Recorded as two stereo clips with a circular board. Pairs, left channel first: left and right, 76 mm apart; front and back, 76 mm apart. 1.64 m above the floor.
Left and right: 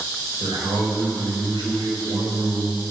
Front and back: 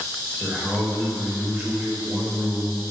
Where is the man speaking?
95° right, 5.5 m.